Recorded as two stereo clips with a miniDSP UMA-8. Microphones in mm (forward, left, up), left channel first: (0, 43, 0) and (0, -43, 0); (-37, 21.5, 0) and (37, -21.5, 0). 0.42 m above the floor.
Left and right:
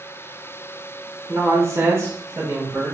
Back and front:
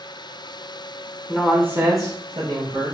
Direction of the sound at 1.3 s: 115° right.